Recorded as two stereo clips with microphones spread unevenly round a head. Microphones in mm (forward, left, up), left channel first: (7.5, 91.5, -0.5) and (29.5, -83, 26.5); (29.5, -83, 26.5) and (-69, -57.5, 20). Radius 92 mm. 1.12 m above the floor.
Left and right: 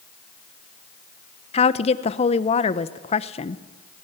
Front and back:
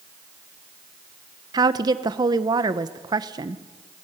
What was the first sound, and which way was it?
A woman speaking, 130° left.